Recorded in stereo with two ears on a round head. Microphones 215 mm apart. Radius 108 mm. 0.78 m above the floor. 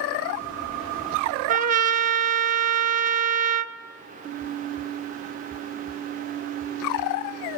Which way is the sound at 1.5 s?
35° right (ahead or behind).